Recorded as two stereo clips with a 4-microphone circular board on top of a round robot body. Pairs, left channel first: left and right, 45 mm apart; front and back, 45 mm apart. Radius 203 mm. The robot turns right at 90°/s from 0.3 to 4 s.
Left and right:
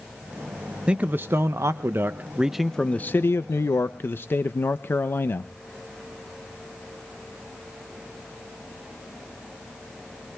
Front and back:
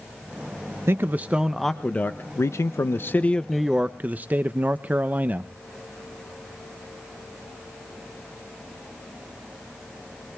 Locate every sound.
0.9 s a man speaking: 155° right, 0.6 m; by 5.5 s 125° left, 0.6 m